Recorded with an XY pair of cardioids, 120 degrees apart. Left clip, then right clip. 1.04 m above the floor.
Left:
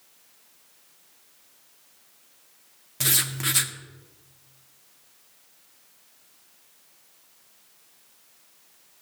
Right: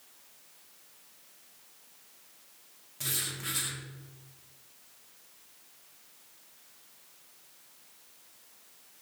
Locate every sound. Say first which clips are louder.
3.0 s writing: left 10 dB; 65° left, 1.6 m